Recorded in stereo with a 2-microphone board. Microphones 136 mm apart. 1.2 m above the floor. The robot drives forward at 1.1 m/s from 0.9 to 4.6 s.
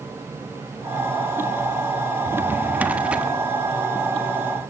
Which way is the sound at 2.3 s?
20° right (ahead or behind).